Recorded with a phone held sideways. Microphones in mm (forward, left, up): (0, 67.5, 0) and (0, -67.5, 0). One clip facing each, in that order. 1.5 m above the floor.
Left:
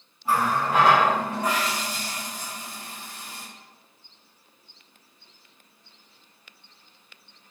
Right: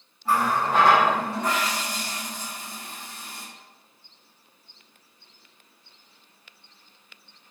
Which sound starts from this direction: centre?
A running tap, at 0.2 s.